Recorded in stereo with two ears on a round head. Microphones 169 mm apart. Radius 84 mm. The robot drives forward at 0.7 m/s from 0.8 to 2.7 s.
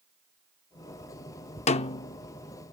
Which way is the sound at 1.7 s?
35° left (ahead or behind).